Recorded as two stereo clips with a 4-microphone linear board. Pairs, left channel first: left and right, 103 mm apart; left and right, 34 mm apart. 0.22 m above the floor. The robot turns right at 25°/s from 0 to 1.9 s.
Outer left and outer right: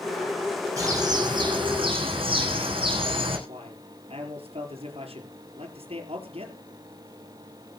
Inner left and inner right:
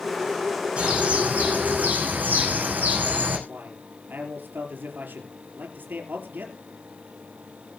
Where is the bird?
30° right (ahead or behind), 6 m; by 3.4 s 60° right (ahead or behind), 6 m.